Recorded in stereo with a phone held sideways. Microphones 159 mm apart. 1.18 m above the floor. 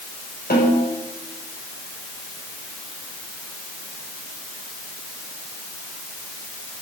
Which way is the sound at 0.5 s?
80° left.